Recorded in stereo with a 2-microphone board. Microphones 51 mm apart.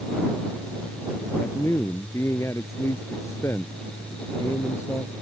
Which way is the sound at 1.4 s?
60° left (ahead or behind).